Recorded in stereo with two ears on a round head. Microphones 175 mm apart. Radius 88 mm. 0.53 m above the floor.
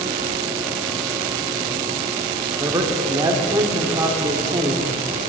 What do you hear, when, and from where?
2.6 s a man speaking: 20° right (ahead or behind), 1.1 m